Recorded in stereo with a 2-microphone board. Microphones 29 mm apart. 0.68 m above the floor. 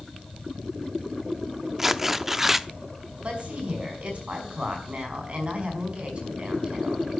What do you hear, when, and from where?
1.8 s tearing paper: 10° right (ahead or behind), 0.6 m
3.2 s a woman speaking: 40° right (ahead or behind), 5.5 m